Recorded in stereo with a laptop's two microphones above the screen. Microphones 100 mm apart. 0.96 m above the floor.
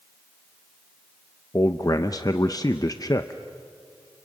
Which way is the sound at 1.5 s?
40° left (ahead or behind).